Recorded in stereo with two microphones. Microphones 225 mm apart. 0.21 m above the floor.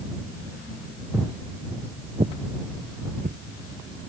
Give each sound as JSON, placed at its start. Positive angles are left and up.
{"t": 1.1, "sound": "footsteps", "side_deg": -10}